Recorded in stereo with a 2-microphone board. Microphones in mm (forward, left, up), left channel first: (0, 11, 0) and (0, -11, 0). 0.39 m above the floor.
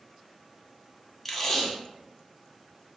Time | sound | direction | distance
1.2 | tape being pulled | 10° left (ahead or behind) | 0.6 m